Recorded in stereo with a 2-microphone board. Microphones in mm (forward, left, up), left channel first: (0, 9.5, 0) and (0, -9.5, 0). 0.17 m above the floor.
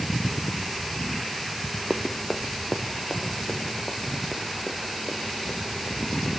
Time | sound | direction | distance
1.9 | running footsteps | 10° right (ahead or behind) | 1.2 m